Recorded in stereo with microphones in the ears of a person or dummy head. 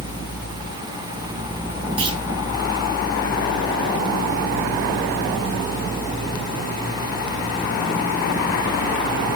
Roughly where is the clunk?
Right.